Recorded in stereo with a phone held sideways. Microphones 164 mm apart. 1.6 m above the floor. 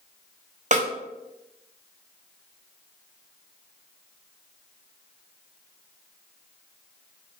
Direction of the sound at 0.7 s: 50° right (ahead or behind).